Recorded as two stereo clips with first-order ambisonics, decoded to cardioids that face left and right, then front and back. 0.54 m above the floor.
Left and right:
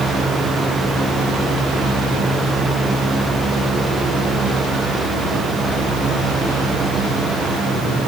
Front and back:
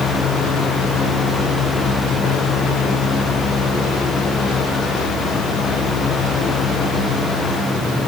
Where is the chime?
I don't hear a chime.